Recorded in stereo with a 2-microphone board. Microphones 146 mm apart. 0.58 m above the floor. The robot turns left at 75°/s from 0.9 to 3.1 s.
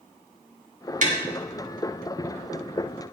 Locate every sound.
1.0 s tapping: 65° right (ahead or behind), 2 m; by 1.2 s 55° right (ahead or behind), 2 m